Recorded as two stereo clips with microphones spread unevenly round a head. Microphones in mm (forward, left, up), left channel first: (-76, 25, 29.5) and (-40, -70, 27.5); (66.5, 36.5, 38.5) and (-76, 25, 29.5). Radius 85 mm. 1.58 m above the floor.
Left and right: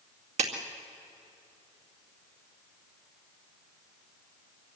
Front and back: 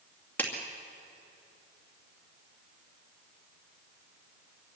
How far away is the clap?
About 2 m.